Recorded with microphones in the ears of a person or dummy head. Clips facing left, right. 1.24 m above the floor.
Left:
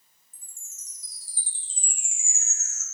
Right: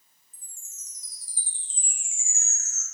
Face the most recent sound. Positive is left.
turn(degrees=25)  # may be behind; listen again after turning